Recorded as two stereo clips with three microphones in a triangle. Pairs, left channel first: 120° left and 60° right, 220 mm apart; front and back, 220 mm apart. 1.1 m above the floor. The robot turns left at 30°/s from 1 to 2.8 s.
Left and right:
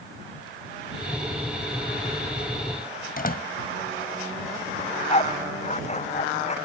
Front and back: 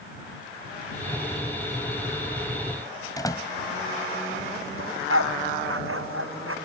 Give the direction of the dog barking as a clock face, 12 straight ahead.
6 o'clock.